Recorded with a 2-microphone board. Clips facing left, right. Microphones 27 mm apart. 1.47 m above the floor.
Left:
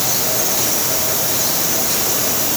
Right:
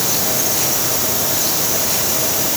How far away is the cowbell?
I don't hear a cowbell.